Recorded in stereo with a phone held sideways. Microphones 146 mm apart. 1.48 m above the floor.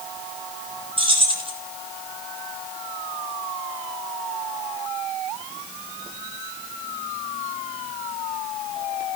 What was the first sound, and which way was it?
Keys jangling, 35° right (ahead or behind).